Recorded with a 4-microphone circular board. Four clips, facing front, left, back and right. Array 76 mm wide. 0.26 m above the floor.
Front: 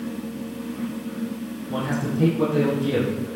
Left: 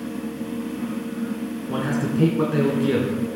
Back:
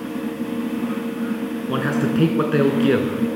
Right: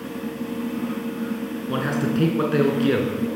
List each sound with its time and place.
1.7 s a man speaking: 165° right, 3 m